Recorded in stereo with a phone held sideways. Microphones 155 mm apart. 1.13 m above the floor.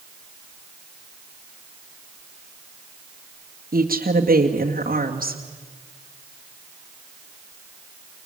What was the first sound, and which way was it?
A woman speaking, 70° right (ahead or behind).